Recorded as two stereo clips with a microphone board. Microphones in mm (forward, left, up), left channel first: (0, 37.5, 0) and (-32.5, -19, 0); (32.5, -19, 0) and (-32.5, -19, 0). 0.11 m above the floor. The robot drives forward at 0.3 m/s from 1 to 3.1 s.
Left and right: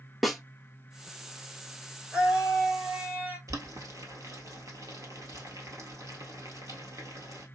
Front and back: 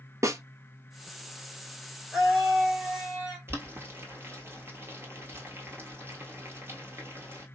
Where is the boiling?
135° right, 1.4 m.